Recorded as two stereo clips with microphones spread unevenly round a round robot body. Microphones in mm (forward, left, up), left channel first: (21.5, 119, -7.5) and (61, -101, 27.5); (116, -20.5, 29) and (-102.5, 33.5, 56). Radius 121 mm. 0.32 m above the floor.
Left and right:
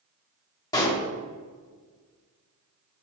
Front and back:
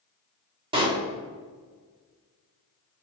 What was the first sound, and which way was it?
A pop, 115° left.